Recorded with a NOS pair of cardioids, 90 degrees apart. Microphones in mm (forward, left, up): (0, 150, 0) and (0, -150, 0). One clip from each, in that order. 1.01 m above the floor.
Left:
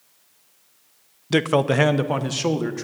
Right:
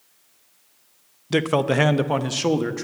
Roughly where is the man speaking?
Ahead.